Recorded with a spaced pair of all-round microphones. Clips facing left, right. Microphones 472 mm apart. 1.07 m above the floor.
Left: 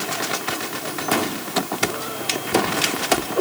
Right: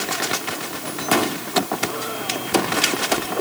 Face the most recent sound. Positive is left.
No sound to turn to.